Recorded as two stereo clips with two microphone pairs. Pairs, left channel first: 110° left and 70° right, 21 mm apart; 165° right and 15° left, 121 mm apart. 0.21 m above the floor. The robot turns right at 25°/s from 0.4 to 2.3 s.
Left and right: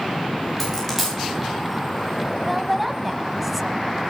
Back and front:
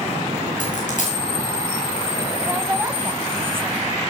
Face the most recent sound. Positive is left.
turn(degrees=20)